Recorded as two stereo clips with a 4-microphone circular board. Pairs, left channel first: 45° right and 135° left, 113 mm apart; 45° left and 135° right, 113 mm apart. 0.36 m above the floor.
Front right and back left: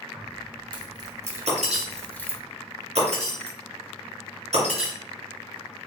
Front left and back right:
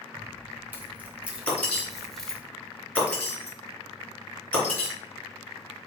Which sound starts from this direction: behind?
Keys jangling, at 0.1 s.